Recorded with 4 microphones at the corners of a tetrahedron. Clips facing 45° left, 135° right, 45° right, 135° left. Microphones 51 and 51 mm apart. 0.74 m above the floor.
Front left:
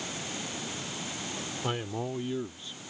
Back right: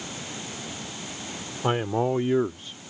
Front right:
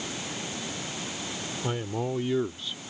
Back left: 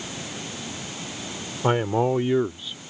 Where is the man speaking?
165° left; by 2.8 s 130° right.